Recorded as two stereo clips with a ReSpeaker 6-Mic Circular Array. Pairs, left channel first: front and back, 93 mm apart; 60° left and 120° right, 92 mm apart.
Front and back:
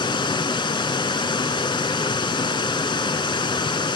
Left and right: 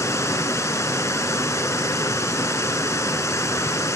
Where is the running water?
10° left, 0.8 m.